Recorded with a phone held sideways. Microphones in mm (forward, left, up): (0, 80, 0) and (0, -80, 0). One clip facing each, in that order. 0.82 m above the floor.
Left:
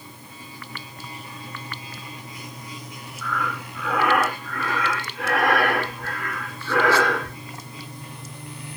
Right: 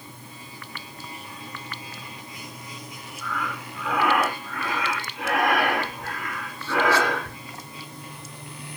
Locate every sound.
3.2 s breathing: 15° right (ahead or behind), 1.7 m